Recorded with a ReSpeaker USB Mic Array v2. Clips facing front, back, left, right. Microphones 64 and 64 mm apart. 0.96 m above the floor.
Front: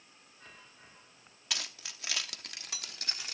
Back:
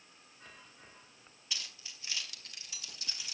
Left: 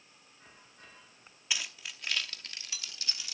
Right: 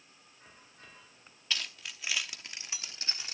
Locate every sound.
1.5 s keys jangling: 15° left, 1.0 m; by 3.3 s 35° right, 1.3 m